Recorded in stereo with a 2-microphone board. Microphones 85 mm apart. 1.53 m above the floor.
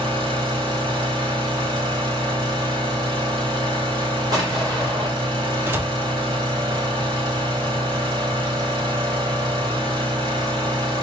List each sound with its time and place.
0.0 s an engine running: 65° right (ahead or behind), 3 m
4.3 s an explosion: 45° right (ahead or behind), 2.5 m
5.7 s a door slam: 25° right (ahead or behind), 0.5 m